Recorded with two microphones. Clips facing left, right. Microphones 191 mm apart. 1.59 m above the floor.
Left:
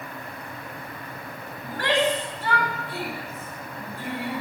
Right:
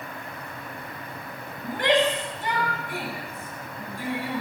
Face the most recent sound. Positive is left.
turn(degrees=-10)  # may be behind; listen again after turning